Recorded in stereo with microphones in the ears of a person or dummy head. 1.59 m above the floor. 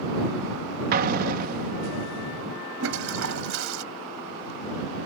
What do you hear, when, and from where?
0.9 s an explosion: 45° right (ahead or behind)
2.8 s a toilet flushing: 80° right